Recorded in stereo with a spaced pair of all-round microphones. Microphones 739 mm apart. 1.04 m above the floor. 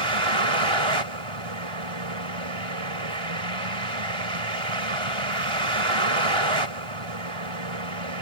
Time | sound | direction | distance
0.0 | a vehicle | 40° right (ahead or behind) | ?